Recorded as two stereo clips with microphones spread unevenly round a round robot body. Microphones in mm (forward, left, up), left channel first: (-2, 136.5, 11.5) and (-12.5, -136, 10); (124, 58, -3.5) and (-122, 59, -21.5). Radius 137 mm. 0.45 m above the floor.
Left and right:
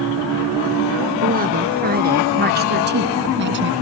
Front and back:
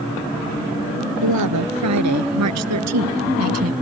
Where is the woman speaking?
150° right; by 3.7 s 140° right.